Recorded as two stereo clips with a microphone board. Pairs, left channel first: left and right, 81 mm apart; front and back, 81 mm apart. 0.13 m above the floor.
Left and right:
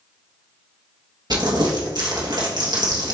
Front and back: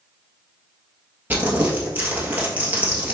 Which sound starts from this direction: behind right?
Crumpling, at 1.3 s.